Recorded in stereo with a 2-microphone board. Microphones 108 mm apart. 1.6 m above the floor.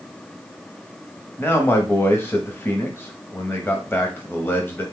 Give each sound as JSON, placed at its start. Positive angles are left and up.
{"t": 1.4, "sound": "a man speaking", "side_deg": 20, "distance_m": 0.8}